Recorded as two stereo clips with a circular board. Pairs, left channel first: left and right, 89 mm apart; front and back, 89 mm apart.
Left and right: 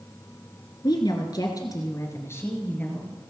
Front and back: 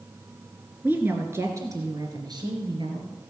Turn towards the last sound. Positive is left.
turn(degrees=165)